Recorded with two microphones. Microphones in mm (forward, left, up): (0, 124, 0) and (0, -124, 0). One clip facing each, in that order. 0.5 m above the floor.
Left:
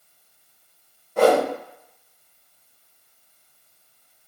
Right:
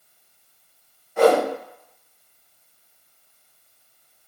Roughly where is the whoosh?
Left.